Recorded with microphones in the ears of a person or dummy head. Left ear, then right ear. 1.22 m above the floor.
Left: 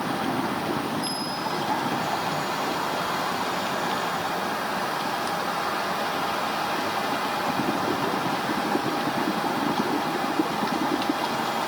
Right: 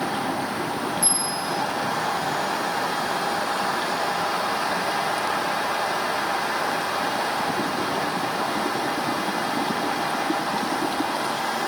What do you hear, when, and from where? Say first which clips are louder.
1.0 s a bell: right 2 dB; 60° right (ahead or behind), 1.9 m